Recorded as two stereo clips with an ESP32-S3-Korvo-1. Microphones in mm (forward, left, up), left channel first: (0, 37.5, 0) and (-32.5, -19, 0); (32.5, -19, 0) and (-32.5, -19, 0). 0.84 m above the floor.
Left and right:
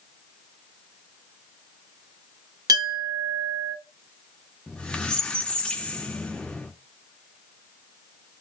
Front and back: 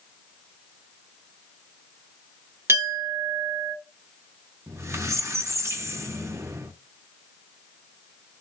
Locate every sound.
2.7 s a clink: 130° right, 1.7 m
4.7 s a squeak: 135° left, 0.5 m